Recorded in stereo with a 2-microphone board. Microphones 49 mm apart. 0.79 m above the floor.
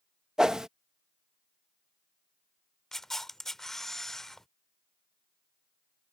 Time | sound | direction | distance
0.4 | a whoosh | 15° right (ahead or behind) | ?
2.9 | a camera shutter | 10° left (ahead or behind) | ?